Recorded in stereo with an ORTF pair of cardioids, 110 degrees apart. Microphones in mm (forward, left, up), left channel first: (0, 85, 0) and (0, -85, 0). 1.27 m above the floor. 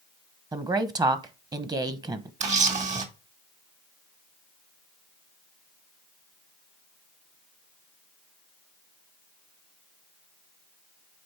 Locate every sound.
0.5 s a woman speaking: 25° right, 1.1 m
2.4 s a camera shutter: 45° right, 1.9 m